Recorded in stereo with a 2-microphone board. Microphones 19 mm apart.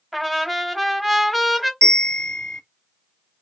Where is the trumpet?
5° right (ahead or behind), 0.9 m.